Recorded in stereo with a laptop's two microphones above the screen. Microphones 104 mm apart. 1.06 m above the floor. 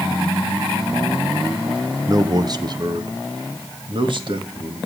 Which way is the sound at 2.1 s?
35° right (ahead or behind).